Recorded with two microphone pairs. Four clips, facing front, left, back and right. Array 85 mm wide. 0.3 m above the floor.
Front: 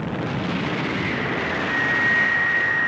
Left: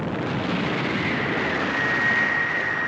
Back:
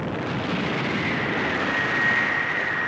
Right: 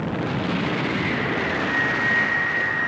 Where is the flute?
115° right, 3 m.